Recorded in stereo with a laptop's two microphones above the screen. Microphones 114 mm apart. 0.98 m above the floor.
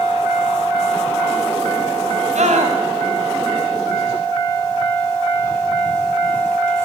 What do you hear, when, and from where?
2.4 s a scream: 90° right, 5.5 m